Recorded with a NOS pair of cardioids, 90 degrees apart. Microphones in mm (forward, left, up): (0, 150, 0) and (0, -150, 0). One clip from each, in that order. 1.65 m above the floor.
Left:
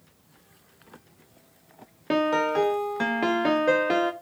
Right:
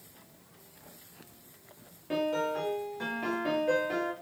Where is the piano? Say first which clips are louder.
Left 7 dB; 65° left, 0.6 m.